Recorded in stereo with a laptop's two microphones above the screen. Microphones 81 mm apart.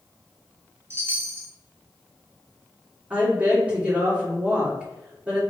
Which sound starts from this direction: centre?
A woman speaking, at 3.1 s.